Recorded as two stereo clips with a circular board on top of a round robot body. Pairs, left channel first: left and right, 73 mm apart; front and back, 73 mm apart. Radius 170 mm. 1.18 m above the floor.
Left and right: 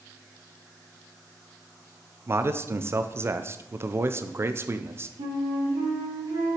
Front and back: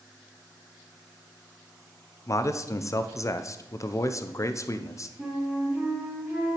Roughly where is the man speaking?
Ahead right.